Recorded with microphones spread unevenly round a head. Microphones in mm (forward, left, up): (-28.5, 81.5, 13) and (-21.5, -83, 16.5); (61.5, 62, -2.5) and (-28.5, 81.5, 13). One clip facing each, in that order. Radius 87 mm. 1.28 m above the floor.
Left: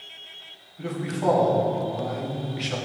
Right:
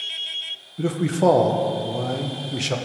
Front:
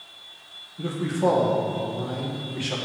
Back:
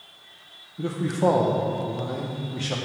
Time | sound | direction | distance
0.8 | a man speaking | 115° right | 1.1 m